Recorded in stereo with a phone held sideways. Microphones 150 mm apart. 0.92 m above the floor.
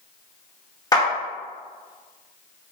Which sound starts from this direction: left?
A clap, at 0.9 s.